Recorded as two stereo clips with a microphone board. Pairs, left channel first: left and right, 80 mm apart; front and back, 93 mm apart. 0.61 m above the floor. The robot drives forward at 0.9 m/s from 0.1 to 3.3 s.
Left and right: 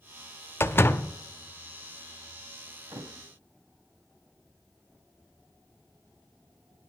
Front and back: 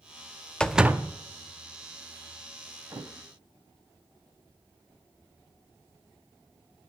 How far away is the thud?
About 1.0 m.